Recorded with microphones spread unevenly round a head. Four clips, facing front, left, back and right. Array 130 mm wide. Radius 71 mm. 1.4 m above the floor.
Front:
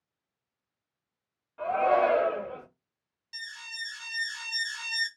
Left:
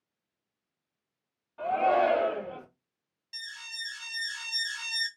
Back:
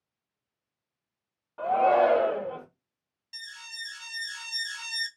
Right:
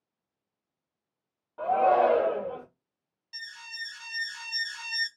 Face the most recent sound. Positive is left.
turn(degrees=-20)